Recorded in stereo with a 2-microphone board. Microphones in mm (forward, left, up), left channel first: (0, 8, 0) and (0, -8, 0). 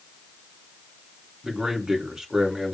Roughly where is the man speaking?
Right.